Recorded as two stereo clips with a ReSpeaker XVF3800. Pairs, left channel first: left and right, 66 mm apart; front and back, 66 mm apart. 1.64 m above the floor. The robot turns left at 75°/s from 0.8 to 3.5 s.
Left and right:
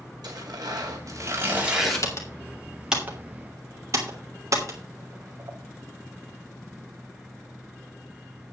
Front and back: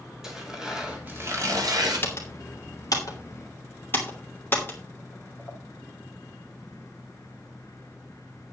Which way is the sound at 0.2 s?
100° right.